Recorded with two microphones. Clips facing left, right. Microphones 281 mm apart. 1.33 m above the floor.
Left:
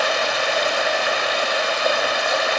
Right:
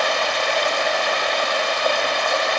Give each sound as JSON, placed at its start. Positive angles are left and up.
{"t": 0.0, "sound": "running water", "side_deg": 5, "distance_m": 0.8}